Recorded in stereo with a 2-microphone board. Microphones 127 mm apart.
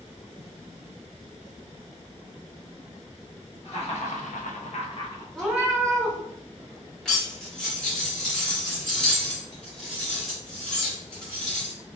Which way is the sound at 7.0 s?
5° left (ahead or behind).